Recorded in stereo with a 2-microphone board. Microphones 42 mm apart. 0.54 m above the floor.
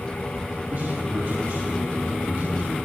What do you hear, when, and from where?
0.7 s a man speaking: 70° right (ahead or behind), 3 m